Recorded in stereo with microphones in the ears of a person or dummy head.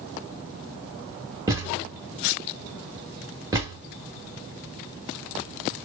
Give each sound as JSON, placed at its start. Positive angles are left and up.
{"t": 1.5, "sound": "a thud", "side_deg": -10, "distance_m": 1.3}